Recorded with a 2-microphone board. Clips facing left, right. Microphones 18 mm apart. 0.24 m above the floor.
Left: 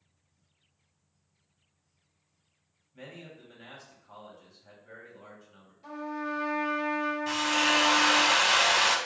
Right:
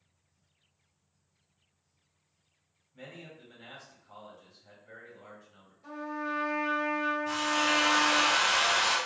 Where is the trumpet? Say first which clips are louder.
Left 1 dB; 35° left (ahead or behind), 1.8 m.